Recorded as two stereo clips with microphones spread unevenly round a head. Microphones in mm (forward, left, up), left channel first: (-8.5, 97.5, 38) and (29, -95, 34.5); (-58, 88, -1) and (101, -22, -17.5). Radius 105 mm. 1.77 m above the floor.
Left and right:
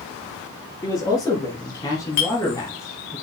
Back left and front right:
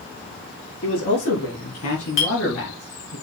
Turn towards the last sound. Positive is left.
turn(degrees=150)